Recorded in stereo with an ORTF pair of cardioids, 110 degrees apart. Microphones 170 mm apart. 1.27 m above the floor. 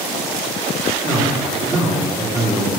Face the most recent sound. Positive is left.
turn(degrees=-15)